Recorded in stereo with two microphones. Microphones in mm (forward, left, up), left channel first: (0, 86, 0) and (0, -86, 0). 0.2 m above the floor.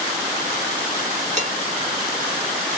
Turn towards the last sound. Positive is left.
turn(degrees=-40)  # may be behind; listen again after turning